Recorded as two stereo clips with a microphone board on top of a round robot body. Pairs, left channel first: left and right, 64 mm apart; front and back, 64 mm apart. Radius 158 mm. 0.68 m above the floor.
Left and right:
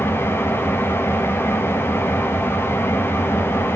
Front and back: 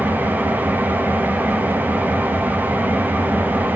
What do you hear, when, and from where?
0.0 s an engine running: 125° left, 0.9 m